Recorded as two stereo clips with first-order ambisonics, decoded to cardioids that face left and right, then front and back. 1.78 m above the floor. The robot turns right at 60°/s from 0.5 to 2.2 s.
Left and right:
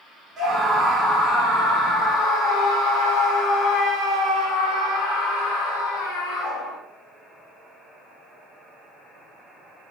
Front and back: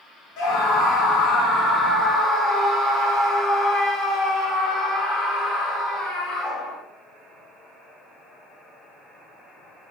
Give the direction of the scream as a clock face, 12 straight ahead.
12 o'clock.